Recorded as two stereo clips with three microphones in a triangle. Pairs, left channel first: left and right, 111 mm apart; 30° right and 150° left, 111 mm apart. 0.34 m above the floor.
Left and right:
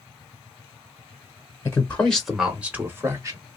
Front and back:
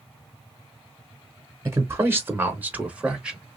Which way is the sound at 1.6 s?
125° left.